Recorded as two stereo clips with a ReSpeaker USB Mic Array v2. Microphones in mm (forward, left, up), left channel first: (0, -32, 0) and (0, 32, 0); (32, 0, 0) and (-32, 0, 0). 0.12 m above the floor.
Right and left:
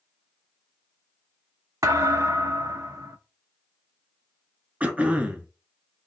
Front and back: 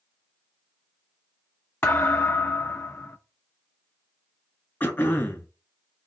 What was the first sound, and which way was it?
A thud, 60° left.